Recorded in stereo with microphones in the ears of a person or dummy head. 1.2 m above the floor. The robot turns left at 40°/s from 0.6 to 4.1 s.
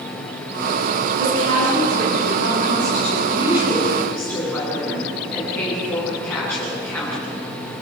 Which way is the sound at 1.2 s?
75° right.